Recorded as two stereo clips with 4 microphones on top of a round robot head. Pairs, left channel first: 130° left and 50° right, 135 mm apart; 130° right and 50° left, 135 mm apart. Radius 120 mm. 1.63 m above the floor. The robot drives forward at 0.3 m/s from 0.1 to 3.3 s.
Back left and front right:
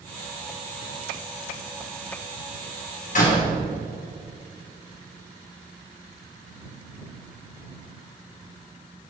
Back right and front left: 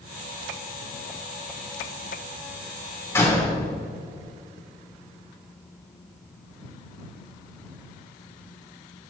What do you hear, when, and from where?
3.1 s a door slam: 155° left, 3 m